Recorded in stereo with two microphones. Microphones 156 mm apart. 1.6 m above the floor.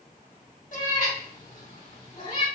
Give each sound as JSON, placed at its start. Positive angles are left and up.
{"t": 0.7, "sound": "a cat meowing", "side_deg": 60, "distance_m": 3.0}